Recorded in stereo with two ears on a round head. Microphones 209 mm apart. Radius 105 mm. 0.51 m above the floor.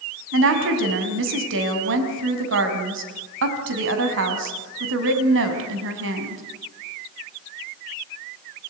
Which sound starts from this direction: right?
A woman speaking, at 0.3 s.